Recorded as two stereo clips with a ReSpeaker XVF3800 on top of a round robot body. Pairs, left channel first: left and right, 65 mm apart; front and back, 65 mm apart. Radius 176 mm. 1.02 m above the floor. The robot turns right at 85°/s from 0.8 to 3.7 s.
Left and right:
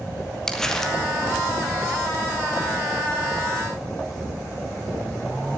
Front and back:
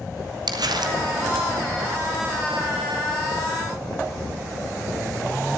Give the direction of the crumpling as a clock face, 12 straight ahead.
6 o'clock.